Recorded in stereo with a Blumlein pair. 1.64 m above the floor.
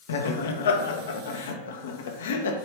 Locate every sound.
0.1 s laughter: 60° left, 1.4 m